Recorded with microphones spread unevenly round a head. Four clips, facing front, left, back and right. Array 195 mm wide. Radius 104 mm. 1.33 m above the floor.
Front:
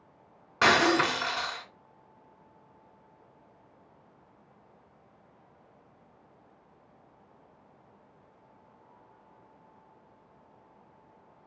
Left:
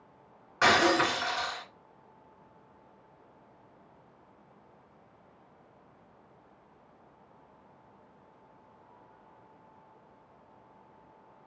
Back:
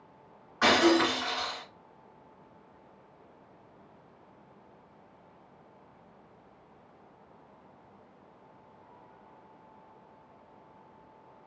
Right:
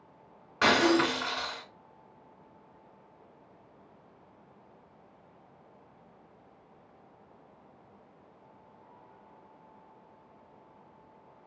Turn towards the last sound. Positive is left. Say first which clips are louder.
# even, even
turn(degrees=-10)